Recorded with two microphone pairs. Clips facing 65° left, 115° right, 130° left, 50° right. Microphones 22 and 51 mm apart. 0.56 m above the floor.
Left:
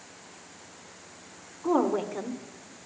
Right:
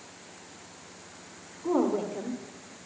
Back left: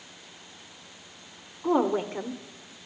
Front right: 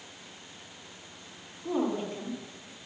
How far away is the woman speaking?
About 1.3 m.